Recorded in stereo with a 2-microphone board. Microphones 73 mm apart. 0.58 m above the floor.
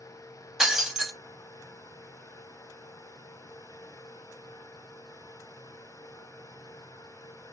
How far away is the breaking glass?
About 0.5 m.